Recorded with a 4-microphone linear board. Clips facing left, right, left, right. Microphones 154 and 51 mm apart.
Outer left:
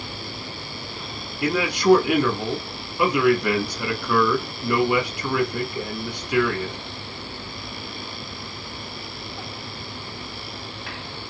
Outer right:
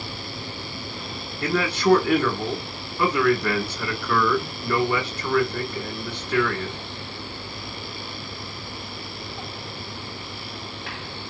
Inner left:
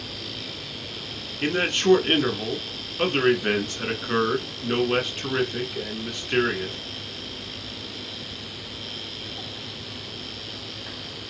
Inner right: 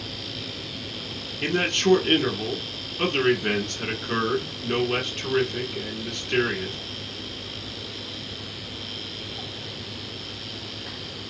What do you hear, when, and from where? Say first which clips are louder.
1.4 s a man speaking: outer left 2 dB, inner left 1 dB; 15° left (ahead or behind), 1.5 m